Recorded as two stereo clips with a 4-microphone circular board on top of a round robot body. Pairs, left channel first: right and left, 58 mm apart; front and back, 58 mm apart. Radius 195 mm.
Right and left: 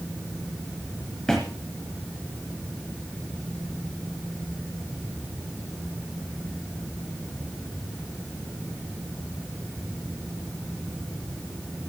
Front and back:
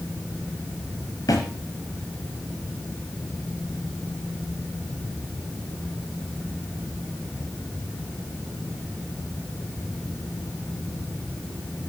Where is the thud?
10° right, 1.1 m.